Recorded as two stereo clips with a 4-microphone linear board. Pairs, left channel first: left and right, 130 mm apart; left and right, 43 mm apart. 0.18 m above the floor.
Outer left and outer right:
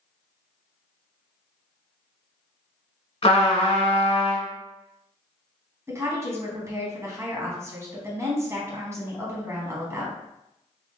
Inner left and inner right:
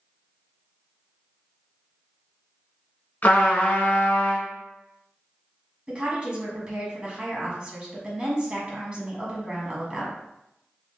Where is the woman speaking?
25° right (ahead or behind), 1.1 m.